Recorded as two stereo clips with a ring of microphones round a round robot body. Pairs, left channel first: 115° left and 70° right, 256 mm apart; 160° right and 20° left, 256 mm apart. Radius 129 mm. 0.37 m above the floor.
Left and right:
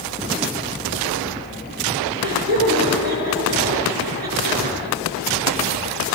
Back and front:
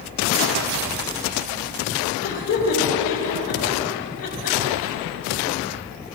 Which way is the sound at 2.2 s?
120° right.